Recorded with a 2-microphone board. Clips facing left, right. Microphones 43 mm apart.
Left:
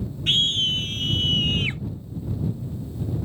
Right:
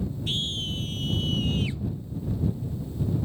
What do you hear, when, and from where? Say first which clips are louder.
0.3 s a scream: left 12 dB; 70° left (ahead or behind); by 1.8 s 55° left (ahead or behind)